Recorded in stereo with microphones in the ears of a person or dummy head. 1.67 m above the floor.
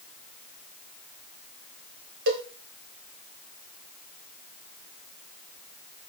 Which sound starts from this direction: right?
A cowbell, at 2.3 s.